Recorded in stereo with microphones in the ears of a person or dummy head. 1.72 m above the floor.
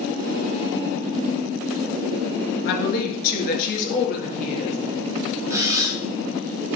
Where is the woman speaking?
60° left (ahead or behind), 3 m; by 4.8 s 50° left (ahead or behind), 4 m.